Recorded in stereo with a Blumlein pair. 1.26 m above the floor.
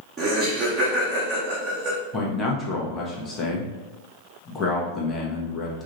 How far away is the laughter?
About 0.8 m.